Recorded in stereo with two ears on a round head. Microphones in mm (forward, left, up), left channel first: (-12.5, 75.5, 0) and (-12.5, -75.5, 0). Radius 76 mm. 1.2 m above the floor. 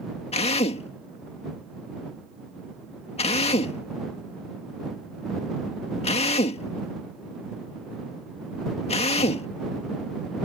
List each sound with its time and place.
0.3 s a drill: 40° left (ahead or behind)